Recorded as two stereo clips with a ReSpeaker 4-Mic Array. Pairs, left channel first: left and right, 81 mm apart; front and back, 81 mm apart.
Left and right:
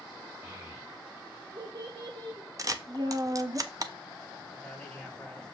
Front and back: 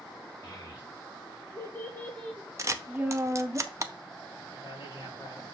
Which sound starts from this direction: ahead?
A man speaking, at 4.5 s.